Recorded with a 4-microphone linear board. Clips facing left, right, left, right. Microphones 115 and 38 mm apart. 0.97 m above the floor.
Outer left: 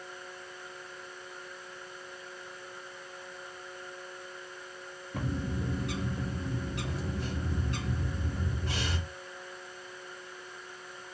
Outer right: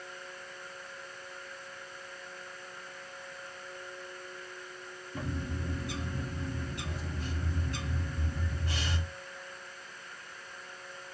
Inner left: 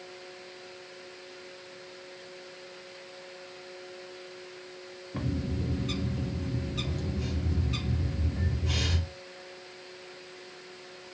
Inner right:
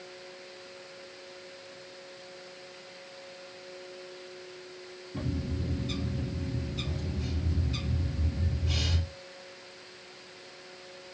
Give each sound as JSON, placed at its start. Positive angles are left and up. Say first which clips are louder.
{"t": 5.1, "sound": "a bird", "louder": "outer left 3 dB, inner left 2 dB", "side_deg": 75, "distance_m": 1.1}